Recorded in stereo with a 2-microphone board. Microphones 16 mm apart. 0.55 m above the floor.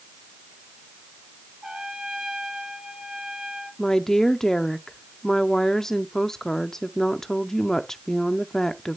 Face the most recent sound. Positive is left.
turn(degrees=25)  # may be behind; listen again after turning